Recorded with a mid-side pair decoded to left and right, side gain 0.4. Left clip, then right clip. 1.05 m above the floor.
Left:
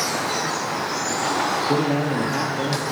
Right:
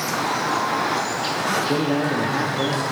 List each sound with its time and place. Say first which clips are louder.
1.7 s a man speaking: even; 15° left, 1.1 m; by 2.9 s 10° right, 1.7 m